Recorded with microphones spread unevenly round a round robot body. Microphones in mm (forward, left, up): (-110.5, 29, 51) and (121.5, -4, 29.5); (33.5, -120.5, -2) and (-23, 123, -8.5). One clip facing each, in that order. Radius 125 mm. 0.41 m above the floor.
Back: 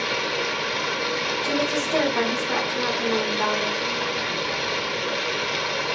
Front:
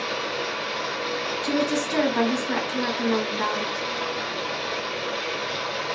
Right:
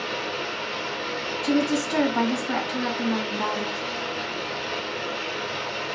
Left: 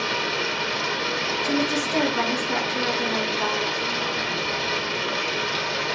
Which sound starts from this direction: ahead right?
A woman speaking, at 1.4 s.